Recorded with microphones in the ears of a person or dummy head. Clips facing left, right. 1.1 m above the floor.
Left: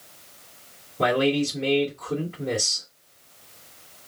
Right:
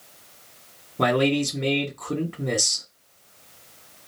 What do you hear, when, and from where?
1.0 s a man speaking: 90° right, 1.5 m